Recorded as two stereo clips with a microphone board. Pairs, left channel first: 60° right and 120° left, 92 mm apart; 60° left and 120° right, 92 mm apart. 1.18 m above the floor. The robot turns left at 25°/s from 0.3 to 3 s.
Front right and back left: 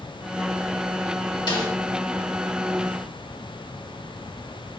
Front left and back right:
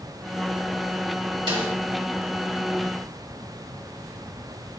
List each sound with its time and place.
1.5 s a snare drum: 95° right, 1.7 m; by 1.7 s 105° right, 1.7 m